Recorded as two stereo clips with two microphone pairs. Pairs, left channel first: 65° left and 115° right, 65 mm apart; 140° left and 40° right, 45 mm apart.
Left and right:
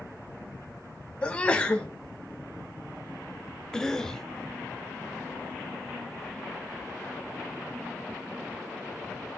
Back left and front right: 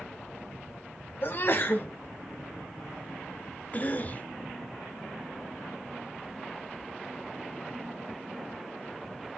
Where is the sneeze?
135° left, 1.8 m.